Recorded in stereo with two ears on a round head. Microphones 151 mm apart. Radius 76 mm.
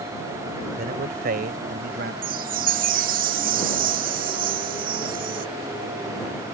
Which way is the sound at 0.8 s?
55° right (ahead or behind).